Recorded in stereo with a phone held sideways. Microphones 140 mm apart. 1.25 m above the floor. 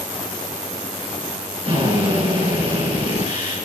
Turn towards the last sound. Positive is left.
turn(degrees=-45)  # may be behind; listen again after turning